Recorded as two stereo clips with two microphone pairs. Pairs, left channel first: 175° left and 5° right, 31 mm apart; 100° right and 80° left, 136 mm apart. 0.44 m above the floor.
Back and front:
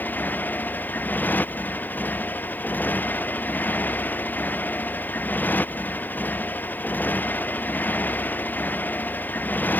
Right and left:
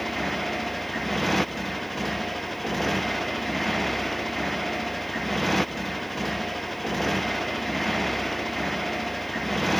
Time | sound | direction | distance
0.0 | a motorcycle | 175° left | ?